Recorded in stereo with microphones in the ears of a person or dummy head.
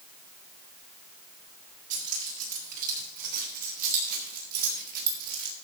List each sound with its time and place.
1.9 s keys jangling: 45° right (ahead or behind), 8 m; by 5.5 s 55° right (ahead or behind), 4.5 m